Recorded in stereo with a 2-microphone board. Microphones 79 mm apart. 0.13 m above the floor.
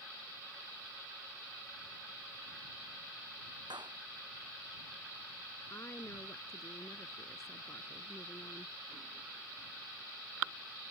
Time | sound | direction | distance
3.7 | a clap | 85° right | ?
5.7 | a woman speaking | 40° left (ahead or behind) | ?